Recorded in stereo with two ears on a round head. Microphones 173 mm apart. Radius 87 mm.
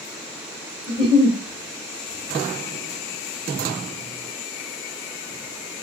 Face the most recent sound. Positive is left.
turn(degrees=20)  # may be behind; listen again after turning